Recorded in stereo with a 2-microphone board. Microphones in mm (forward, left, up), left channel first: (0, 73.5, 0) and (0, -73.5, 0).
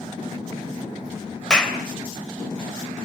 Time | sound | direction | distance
1.5 | a clap | 5° left (ahead or behind) | 3 m